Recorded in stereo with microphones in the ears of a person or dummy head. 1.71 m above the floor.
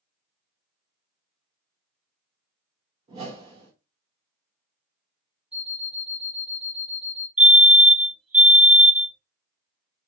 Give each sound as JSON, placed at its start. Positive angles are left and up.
{"t": 3.1, "sound": "a whoosh", "side_deg": -35, "distance_m": 1.2}
{"t": 5.5, "sound": "an alarm clock", "side_deg": -5, "distance_m": 1.8}
{"t": 7.4, "sound": "a fire alarm", "side_deg": -10, "distance_m": 1.3}